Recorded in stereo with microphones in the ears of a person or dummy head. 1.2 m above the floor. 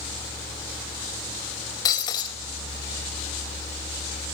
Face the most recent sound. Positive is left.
turn(degrees=20)  # may be behind; listen again after turning